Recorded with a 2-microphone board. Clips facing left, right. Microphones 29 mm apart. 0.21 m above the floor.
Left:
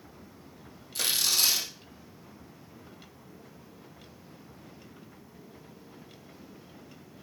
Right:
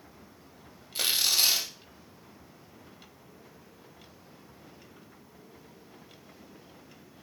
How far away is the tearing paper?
About 2.0 m.